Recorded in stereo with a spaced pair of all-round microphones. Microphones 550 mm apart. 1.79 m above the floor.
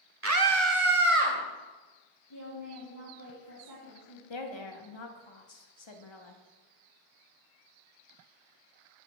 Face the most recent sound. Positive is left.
turn(degrees=55)  # may be behind; listen again after turning